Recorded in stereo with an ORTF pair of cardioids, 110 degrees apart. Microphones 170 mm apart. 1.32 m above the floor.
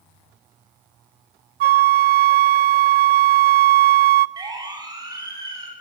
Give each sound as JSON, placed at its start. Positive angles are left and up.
{"t": 1.6, "sound": "a flute", "azimuth_deg": -70, "distance_m": 0.6}
{"t": 4.4, "sound": "a siren", "azimuth_deg": -25, "distance_m": 8.5}